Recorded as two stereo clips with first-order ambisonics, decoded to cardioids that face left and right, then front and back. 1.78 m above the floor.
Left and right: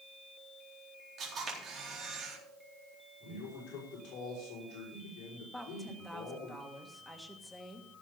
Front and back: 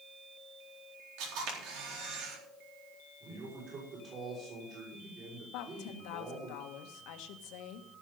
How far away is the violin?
I don't hear a violin.